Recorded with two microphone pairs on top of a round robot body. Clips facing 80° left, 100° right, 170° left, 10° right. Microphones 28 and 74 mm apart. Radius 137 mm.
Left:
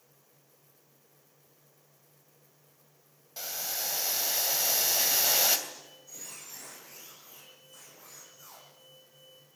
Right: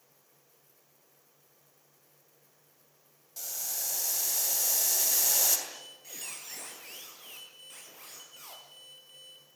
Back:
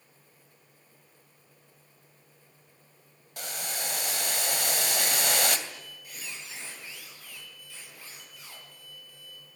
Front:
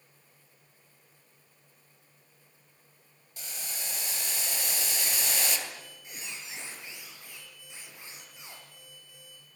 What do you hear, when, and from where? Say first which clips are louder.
3.4 s boiling: left 3 dB, back 7 dB; 140° left, 3 m
5.7 s a squeak: right 2 dB, even; 80° right, 10 m